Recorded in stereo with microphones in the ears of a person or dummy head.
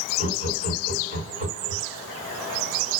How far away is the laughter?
About 2.5 m.